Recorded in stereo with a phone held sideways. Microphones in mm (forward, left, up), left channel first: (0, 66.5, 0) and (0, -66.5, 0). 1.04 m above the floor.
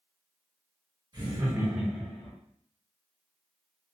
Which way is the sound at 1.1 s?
35° right (ahead or behind).